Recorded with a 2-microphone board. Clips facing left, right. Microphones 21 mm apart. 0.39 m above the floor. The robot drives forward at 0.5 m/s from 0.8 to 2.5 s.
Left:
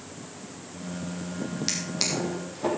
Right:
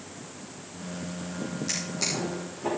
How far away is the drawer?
About 4 m.